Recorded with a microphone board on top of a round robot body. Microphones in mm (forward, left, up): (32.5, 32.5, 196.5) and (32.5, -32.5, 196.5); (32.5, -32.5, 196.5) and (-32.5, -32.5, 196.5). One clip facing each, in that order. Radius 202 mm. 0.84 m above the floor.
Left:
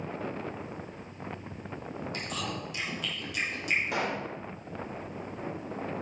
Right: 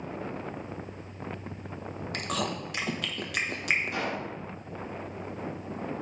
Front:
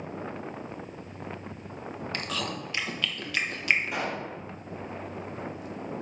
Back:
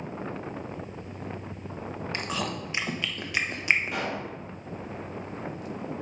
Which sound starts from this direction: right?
Chewing, at 2.1 s.